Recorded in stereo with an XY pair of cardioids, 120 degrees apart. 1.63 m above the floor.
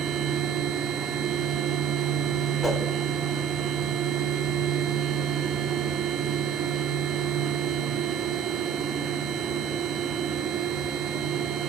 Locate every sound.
0.0 s a machine running: 70° right, 1.1 m
2.6 s a whoosh: 10° left, 2 m